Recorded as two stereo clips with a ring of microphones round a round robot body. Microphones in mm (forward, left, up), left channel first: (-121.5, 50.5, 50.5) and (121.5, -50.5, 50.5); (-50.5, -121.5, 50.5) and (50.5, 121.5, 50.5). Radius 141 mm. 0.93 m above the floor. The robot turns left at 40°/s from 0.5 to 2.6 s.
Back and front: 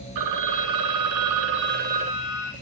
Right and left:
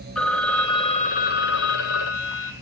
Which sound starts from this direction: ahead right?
A phone ringing, at 0.1 s.